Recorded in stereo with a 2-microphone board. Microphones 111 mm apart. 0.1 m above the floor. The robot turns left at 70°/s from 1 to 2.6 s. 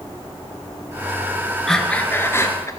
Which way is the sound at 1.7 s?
175° left.